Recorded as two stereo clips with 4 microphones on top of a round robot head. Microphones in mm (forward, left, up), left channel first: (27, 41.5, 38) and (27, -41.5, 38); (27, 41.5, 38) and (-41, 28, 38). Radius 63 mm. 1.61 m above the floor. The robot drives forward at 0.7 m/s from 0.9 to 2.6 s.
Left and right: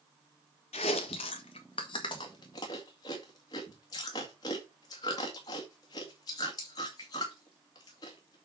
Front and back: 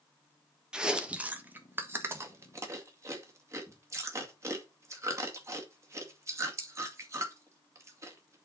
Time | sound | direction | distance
0.7 | chewing | 115° left | 1.4 m